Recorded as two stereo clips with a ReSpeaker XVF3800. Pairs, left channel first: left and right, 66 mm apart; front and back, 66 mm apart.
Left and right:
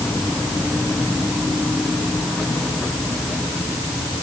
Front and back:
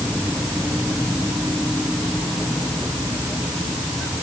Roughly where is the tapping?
I don't hear tapping.